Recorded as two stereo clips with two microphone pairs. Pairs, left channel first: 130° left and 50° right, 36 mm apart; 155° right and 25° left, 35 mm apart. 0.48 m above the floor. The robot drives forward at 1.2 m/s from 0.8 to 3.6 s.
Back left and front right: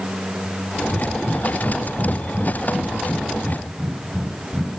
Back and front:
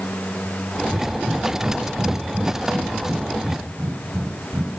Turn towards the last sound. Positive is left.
turn(degrees=65)